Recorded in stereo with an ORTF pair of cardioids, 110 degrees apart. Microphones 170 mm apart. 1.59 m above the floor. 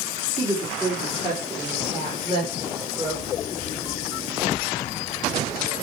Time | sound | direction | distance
0.4 | a woman speaking | 25° right | 3.5 m